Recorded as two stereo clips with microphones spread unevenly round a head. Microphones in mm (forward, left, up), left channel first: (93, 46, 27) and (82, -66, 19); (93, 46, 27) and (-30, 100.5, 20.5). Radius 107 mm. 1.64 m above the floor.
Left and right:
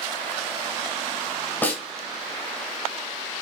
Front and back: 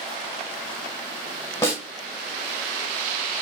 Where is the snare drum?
30° left, 1.8 m.